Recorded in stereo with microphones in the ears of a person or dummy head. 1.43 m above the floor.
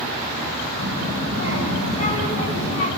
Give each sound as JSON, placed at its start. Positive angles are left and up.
{"t": 0.8, "sound": "a child speaking", "side_deg": 50, "distance_m": 7.0}